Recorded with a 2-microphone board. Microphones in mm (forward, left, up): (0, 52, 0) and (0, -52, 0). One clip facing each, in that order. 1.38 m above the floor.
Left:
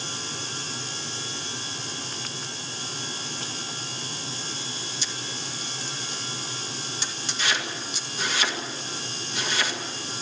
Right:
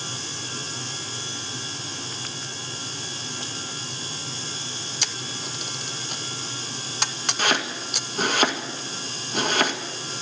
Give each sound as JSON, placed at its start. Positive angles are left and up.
{"t": 5.0, "sound": "a camera shutter", "side_deg": -70, "distance_m": 0.8}
{"t": 7.4, "sound": "chopping", "side_deg": -50, "distance_m": 1.9}